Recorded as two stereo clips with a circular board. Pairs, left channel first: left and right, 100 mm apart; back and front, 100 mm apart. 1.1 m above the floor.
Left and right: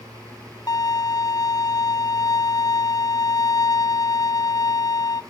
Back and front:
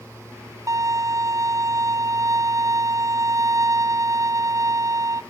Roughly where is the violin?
Ahead left.